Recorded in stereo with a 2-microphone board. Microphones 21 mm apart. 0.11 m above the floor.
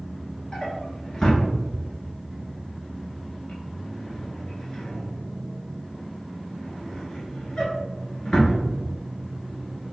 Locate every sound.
0.5 s a drawer: 30° left (ahead or behind), 1.0 m